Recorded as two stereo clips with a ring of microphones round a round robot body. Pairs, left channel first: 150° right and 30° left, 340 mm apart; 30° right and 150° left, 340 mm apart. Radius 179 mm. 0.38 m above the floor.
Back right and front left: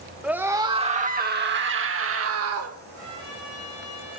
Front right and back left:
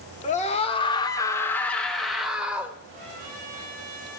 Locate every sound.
0.2 s a scream: 50° right, 0.9 m; by 2.8 s 65° left, 1.4 m
2.9 s a trumpet: 155° left, 6.5 m